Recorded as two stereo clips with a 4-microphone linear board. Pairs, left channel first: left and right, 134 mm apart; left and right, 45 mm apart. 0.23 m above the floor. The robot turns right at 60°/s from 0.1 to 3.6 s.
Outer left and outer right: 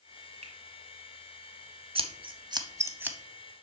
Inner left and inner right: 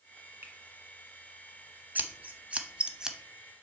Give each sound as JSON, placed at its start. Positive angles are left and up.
{"t": 0.4, "sound": "a finger snap", "side_deg": -60, "distance_m": 1.5}
{"t": 1.9, "sound": "scissors", "side_deg": -45, "distance_m": 0.7}